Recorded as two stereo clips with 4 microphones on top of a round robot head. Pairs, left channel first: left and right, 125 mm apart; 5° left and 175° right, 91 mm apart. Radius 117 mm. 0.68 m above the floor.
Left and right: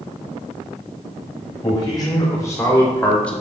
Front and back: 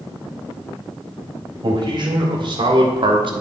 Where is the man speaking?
150° left, 3 m; by 3.3 s 170° left, 1.2 m.